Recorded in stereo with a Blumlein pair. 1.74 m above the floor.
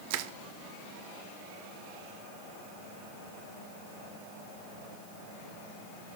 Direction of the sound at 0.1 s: 50° right.